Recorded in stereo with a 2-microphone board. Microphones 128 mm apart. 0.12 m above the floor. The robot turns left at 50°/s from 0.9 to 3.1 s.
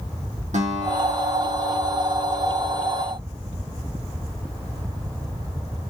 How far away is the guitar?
About 5 m.